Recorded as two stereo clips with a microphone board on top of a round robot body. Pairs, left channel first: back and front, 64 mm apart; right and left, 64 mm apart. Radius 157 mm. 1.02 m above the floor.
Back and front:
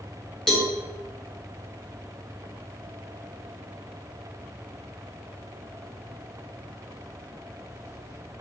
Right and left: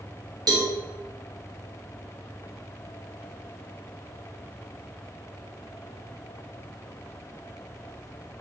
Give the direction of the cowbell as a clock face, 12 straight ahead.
9 o'clock.